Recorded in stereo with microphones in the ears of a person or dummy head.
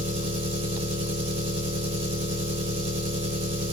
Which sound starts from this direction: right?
An engine running, at 0.0 s.